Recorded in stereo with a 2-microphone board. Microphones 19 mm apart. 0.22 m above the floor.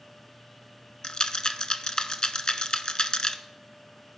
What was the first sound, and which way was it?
A rattle, 55° left (ahead or behind).